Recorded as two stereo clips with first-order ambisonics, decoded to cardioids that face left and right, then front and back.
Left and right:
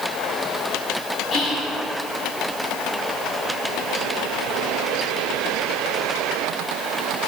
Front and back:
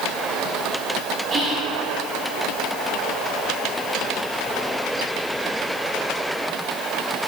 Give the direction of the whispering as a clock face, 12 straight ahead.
8 o'clock.